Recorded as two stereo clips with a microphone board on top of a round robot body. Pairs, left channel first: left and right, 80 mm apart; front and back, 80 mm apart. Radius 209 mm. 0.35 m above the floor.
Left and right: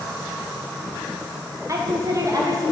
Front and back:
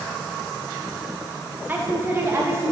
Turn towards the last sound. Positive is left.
turn(degrees=-130)